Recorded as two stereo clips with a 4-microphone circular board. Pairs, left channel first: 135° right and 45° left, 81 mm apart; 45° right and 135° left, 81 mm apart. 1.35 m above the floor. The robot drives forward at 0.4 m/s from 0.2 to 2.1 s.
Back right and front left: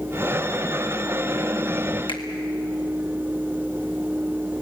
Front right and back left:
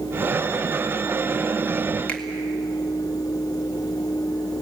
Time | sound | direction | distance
2.1 | a finger snap | 120° right | 2 m